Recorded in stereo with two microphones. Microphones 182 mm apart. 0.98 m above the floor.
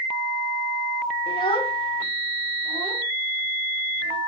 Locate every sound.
1.3 s a child speaking: 30° left (ahead or behind), 1.6 m